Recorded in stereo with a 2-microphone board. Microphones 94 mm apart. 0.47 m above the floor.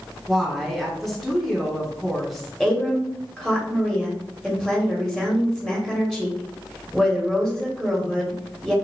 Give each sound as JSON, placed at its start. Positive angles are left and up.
{"t": 0.3, "sound": "a woman speaking", "side_deg": 0, "distance_m": 1.4}
{"t": 2.6, "sound": "a woman speaking", "side_deg": -5, "distance_m": 1.1}